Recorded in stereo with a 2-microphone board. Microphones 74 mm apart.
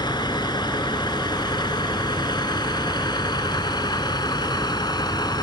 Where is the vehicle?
85° left; by 5.4 s 75° left (ahead or behind).